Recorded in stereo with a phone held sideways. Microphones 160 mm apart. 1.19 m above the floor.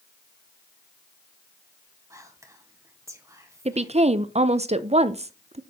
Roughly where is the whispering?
Centre.